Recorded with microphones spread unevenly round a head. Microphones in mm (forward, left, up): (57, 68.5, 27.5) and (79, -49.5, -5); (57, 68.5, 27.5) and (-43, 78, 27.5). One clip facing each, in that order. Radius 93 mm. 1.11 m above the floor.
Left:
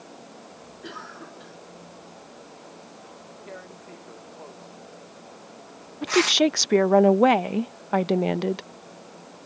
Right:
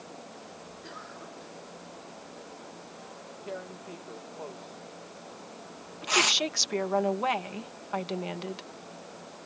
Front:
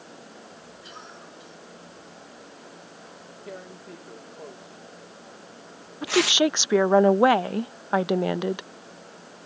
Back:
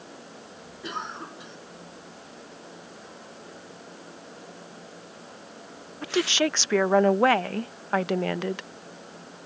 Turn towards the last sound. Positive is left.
turn(degrees=70)